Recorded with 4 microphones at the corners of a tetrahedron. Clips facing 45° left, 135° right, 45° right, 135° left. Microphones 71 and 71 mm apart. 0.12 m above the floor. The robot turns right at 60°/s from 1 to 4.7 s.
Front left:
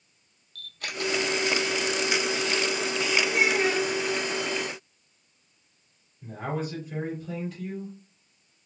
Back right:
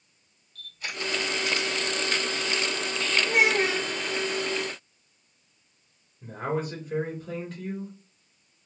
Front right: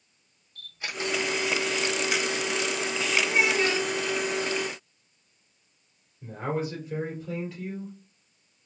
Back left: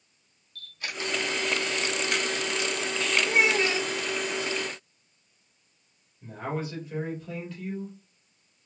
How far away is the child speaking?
About 1.3 m.